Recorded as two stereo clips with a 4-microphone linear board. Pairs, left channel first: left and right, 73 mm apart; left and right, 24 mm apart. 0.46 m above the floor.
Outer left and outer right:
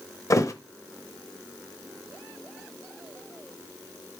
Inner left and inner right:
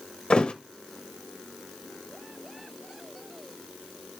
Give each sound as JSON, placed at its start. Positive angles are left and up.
{"t": 0.3, "sound": "a thud", "side_deg": 45, "distance_m": 0.5}